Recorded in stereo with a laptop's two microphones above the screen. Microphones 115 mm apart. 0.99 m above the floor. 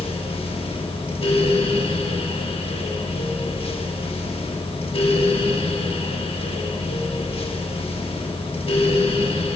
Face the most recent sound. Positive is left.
turn(degrees=55)  # may be behind; listen again after turning